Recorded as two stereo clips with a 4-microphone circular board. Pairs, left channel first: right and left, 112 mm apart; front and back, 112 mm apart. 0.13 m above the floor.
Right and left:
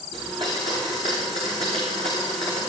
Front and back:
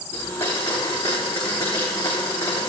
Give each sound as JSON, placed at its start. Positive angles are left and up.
{"t": 0.1, "sound": "a blender", "azimuth_deg": 60, "distance_m": 6.0}